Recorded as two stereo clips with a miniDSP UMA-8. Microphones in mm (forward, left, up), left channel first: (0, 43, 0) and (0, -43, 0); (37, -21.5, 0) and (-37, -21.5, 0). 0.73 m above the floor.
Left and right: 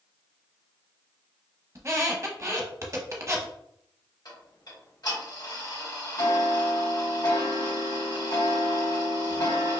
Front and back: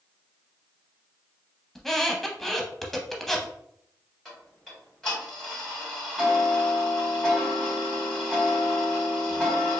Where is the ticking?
85° left, 1.8 m.